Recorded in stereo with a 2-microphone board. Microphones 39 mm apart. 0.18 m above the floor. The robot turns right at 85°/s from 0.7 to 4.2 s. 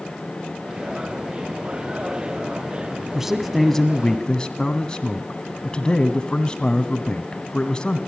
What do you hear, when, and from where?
3.1 s a man speaking: 10° right (ahead or behind), 1.3 m; by 8.0 s 20° left (ahead or behind), 1.3 m